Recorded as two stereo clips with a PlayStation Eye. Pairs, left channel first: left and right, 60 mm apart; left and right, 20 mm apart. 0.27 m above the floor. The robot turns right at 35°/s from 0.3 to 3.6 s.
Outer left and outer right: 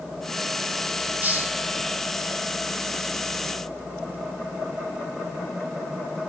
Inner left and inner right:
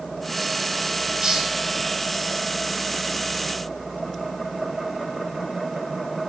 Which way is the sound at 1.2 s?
30° right (ahead or behind).